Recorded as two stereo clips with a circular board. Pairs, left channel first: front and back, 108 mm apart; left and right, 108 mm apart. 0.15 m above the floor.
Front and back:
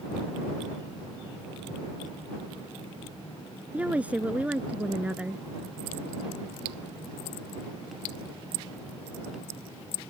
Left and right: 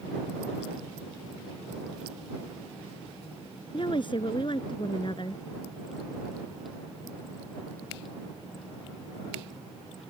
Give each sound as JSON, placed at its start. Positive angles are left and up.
{"t": 3.7, "sound": "a woman speaking", "azimuth_deg": 105}